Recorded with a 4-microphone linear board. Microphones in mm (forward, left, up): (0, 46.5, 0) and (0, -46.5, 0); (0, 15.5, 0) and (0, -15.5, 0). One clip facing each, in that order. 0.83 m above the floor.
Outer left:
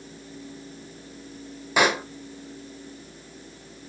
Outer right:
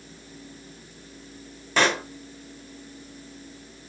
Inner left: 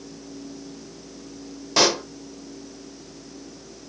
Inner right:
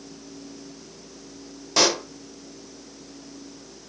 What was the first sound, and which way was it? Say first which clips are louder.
A pop: outer left 1 dB, inner left 1 dB; 10° left (ahead or behind).